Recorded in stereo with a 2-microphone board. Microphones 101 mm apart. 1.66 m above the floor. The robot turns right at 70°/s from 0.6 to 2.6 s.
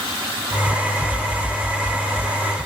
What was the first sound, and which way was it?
Only background noise.